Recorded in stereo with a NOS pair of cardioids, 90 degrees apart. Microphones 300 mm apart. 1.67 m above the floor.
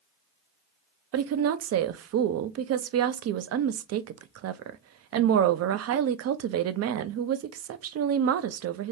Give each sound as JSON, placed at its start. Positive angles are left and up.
{"t": 1.1, "sound": "a woman speaking", "azimuth_deg": -55, "distance_m": 0.6}